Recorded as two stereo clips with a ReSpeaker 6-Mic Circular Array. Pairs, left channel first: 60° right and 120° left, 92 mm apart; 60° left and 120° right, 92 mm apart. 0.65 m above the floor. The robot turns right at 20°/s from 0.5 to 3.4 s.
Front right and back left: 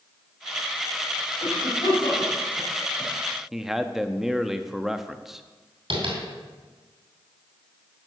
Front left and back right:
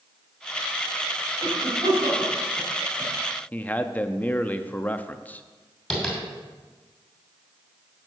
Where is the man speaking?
40° left, 0.5 m.